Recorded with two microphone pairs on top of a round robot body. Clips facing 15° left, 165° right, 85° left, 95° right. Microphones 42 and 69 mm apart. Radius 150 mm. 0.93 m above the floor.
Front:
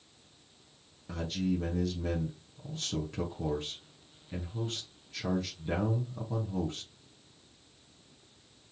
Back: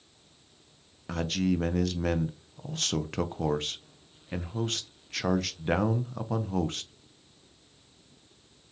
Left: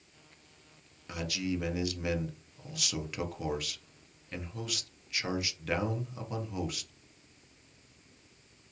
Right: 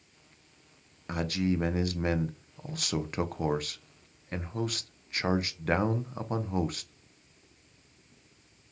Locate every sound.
1.1 s a man speaking: 145° right, 0.6 m